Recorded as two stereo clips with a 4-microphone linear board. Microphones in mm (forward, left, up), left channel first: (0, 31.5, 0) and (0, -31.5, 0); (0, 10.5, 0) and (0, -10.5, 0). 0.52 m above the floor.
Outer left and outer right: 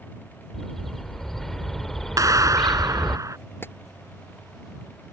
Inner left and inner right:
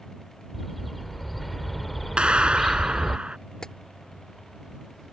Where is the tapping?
35° left (ahead or behind).